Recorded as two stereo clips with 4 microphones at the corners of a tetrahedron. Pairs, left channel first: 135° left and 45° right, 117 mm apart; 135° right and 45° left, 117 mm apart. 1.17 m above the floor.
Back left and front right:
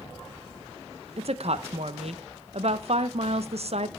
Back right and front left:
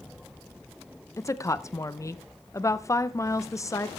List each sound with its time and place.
1.2 s a woman speaking: 70° right, 0.7 m